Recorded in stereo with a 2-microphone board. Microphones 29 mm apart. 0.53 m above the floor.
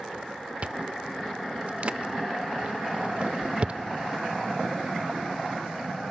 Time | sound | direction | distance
0.6 | chewing | 40° right (ahead or behind) | 0.7 m